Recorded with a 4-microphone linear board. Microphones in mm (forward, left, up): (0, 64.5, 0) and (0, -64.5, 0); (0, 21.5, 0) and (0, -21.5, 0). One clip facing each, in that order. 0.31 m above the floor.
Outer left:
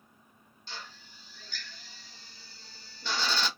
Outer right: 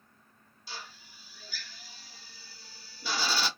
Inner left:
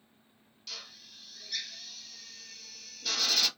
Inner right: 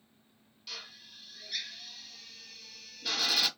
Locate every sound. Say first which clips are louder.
0.7 s a drill: even, even; 10° right (ahead or behind), 0.8 m